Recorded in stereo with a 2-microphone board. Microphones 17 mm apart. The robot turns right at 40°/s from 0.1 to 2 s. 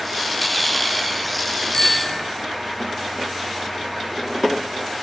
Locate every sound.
1.7 s a bicycle bell: 40° left (ahead or behind), 3 m; by 2.2 s 30° left (ahead or behind), 3 m